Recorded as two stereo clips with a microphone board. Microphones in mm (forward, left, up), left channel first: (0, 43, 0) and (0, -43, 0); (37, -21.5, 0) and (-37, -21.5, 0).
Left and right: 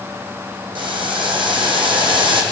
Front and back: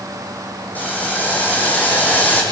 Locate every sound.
0.8 s boiling: 70° right, 3.5 m